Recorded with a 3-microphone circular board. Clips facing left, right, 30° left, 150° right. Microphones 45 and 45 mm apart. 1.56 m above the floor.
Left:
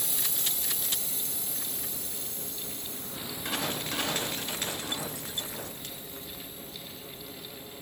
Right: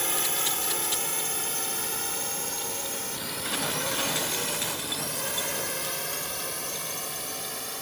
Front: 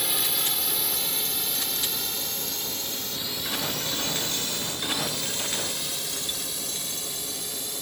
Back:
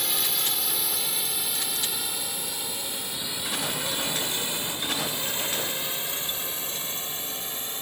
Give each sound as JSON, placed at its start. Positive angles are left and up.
{"t": 0.0, "sound": "a drone", "azimuth_deg": -60}